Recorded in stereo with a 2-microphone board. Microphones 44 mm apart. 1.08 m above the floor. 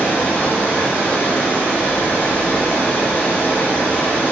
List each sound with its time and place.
0.0 s running water: 40° left (ahead or behind), 1.4 m